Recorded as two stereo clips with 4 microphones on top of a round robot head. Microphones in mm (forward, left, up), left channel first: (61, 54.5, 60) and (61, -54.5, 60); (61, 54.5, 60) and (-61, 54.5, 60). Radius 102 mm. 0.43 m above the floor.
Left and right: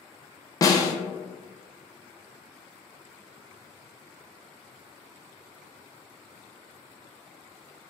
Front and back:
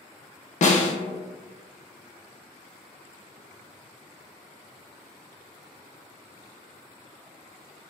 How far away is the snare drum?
About 0.5 m.